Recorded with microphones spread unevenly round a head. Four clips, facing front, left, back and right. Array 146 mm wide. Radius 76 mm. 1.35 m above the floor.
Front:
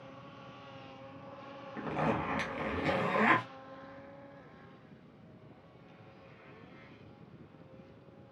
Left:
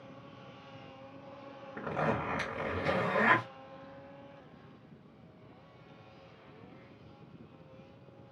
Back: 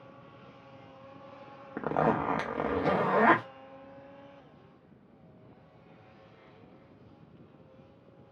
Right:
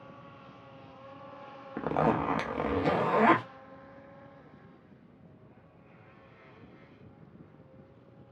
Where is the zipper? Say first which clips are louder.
Right 6 dB, back 6 dB; 145° right, 0.6 m.